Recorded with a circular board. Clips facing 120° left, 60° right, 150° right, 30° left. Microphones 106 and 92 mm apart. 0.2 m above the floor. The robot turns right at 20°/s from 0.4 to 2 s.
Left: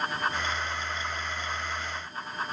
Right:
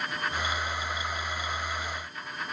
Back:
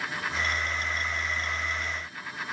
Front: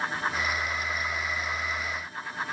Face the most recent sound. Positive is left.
No sound to turn to.